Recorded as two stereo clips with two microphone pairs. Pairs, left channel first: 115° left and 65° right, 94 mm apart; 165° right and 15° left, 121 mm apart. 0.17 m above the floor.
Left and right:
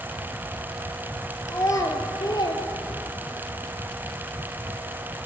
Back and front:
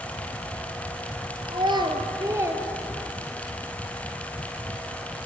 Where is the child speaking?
60° left, 2.5 m; by 3.5 s 110° left, 2.5 m.